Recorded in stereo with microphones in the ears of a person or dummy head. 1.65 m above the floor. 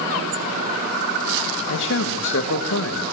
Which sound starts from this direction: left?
A man speaking, at 1.7 s.